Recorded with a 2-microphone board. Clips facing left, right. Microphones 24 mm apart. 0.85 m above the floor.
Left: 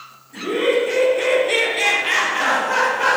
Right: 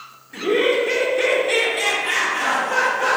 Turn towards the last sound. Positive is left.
turn(degrees=55)  # may be behind; listen again after turning